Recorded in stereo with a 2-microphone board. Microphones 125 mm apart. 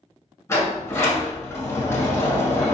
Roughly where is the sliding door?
Left.